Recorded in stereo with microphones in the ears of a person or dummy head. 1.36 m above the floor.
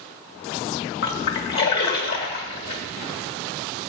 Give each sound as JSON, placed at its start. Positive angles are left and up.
{"t": 1.0, "sound": "a splash", "side_deg": 60, "distance_m": 1.8}